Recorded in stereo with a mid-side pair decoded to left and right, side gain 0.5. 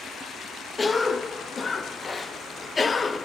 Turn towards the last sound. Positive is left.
turn(degrees=30)